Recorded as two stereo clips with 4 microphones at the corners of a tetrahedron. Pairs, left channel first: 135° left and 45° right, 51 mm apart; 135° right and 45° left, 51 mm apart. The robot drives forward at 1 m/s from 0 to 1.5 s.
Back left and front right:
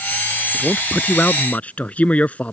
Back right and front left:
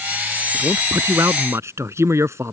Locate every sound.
0.5 s a man speaking: 60° left; by 2.5 s 70° left